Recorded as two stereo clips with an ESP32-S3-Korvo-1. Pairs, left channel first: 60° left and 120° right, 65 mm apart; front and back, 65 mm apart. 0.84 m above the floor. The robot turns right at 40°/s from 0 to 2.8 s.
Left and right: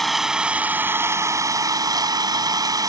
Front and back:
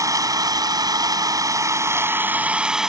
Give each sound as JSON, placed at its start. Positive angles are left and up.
{"t": 0.0, "sound": "an engine running", "azimuth_deg": 150}